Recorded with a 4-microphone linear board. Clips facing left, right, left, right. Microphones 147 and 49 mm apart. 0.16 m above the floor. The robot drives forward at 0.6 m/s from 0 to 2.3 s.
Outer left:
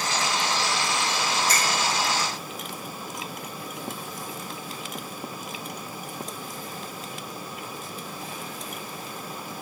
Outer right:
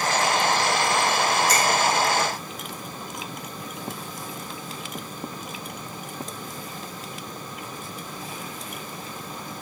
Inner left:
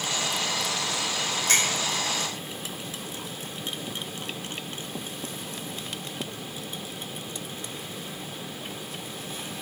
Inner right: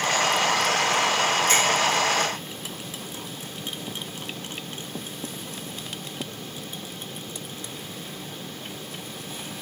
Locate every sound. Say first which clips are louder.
1.5 s a finger snap: outer right 5 dB, even; 60° left (ahead or behind), 5.5 m